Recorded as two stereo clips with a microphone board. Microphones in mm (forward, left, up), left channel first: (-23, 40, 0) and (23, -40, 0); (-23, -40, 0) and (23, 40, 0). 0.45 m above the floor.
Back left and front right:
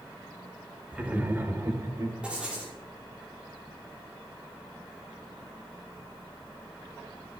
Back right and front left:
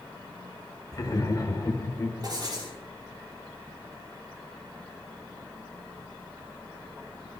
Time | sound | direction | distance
0.9 | laughter | 130° right | 1.8 m
2.2 | writing | 20° left | 6.5 m